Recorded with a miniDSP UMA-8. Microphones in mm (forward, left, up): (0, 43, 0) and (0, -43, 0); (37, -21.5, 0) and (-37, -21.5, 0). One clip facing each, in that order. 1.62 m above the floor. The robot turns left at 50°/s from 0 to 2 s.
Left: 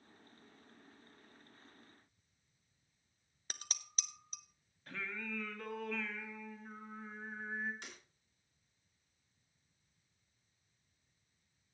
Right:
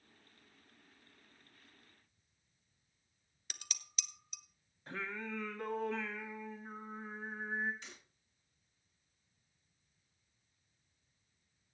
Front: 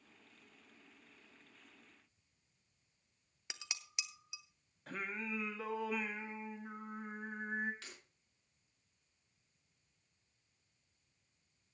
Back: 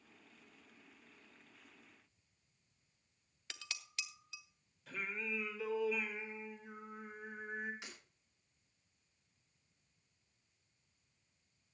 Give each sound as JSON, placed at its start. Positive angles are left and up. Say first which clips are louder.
{"t": 3.5, "sound": "dishes clattering", "louder": "left 2 dB, even", "azimuth_deg": 65, "distance_m": 0.8}
{"t": 4.9, "sound": "singing", "louder": "right 2 dB, even", "azimuth_deg": -30, "distance_m": 1.5}
{"t": 7.8, "sound": "breaking glass", "louder": "left 1 dB, back 2 dB", "azimuth_deg": 110, "distance_m": 5.5}